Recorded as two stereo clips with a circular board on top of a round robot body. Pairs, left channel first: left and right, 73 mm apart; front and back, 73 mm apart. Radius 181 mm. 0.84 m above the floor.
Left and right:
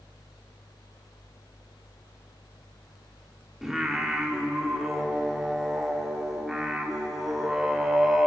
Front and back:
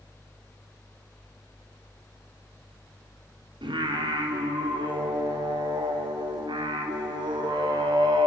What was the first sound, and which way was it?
Singing, 175° right.